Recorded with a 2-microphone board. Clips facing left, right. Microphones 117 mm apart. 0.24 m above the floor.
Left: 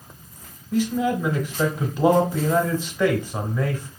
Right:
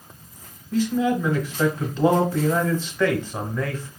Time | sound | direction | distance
0.7 | a man speaking | 15° left (ahead or behind) | 1.0 m